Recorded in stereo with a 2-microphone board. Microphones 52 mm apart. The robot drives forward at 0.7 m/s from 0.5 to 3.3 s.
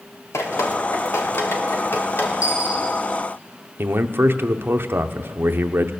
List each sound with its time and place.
0.3 s dripping: 70° left (ahead or behind), 1.5 m; by 2.3 s 45° left (ahead or behind), 2 m
2.4 s a dropped coin: 70° left (ahead or behind), 6.5 m
3.8 s a man speaking: 45° right (ahead or behind), 0.7 m